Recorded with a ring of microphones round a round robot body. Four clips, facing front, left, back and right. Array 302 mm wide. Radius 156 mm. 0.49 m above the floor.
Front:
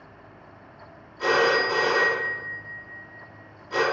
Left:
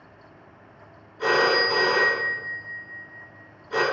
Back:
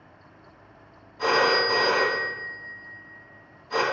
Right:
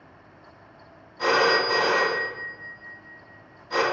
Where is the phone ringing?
130° right, 2 m.